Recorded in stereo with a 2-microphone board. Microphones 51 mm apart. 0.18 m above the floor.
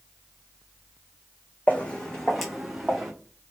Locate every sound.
1.7 s footsteps: 35° left (ahead or behind), 0.7 m; by 3.1 s 15° right (ahead or behind), 1.1 m